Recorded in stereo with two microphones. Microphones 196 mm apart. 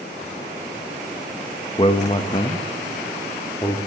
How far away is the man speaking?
About 0.6 m.